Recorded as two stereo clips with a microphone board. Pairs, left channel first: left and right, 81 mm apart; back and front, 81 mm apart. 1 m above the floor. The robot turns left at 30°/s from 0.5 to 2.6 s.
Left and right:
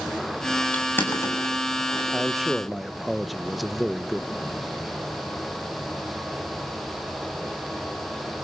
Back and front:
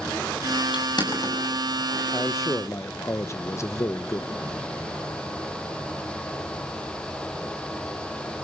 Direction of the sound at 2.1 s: 165° right.